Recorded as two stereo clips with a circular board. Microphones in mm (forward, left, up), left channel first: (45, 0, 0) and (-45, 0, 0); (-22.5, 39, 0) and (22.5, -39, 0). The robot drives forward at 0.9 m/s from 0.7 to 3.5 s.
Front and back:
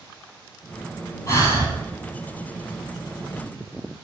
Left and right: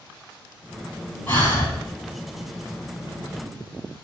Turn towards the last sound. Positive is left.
turn(degrees=85)